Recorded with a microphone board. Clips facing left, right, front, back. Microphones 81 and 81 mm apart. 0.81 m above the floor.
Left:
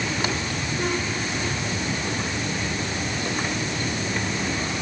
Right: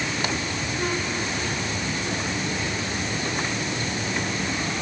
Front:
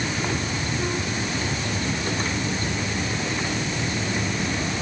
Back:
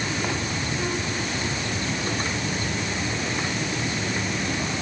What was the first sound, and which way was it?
Only background noise.